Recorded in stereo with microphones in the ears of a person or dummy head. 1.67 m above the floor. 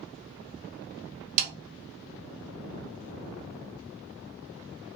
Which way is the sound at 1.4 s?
50° right (ahead or behind).